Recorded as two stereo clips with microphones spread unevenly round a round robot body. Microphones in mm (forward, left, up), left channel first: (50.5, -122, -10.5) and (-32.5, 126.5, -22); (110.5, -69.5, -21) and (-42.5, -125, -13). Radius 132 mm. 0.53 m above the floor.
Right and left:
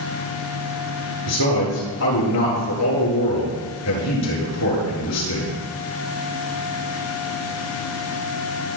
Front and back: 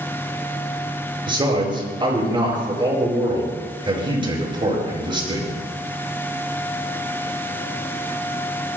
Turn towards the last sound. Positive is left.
turn(degrees=-100)